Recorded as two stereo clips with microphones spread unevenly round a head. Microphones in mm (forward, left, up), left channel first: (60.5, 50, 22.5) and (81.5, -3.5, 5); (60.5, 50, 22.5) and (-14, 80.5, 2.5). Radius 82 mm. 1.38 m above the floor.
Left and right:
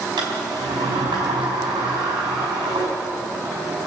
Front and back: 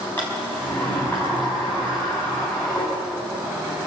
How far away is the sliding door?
About 4.5 m.